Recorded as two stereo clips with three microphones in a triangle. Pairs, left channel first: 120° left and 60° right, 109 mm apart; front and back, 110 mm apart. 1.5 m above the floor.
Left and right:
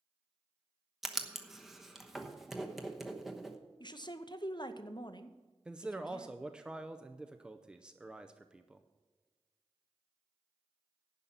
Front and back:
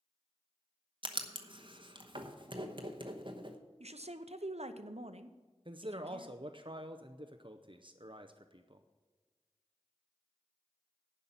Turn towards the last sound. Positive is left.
turn(degrees=-145)